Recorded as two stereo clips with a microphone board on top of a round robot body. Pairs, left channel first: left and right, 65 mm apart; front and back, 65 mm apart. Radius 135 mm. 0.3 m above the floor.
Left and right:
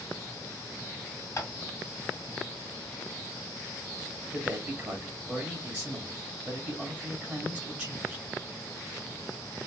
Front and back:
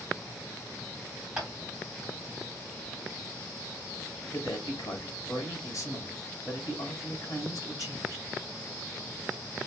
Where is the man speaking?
35° right, 2 m.